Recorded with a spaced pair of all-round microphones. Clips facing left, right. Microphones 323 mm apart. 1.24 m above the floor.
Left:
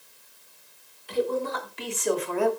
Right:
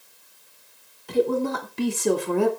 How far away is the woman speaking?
About 3.5 m.